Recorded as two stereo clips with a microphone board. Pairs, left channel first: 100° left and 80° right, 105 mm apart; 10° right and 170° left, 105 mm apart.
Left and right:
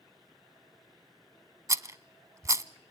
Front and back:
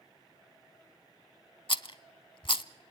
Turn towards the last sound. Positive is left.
turn(degrees=-20)